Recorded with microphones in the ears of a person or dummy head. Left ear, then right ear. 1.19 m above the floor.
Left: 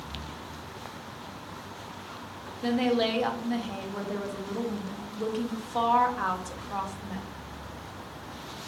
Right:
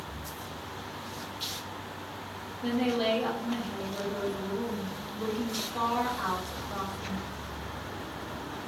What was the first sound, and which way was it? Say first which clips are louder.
A woman speaking: left 2 dB; 60° left (ahead or behind).